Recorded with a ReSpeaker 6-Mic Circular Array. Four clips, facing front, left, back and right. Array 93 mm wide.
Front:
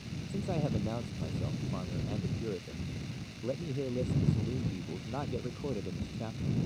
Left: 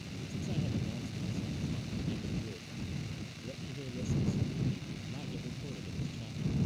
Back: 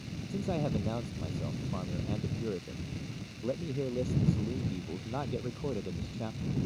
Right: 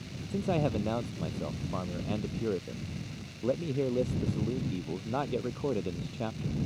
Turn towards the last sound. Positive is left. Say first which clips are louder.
# right 9 dB, back 1 dB
turn(degrees=-95)